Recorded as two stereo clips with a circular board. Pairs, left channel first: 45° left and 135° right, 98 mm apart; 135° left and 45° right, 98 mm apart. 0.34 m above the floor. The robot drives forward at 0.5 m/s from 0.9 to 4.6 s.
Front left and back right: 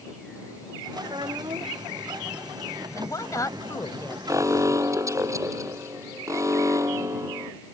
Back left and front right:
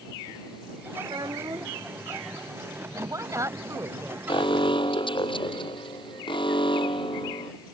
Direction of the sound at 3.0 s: Straight ahead.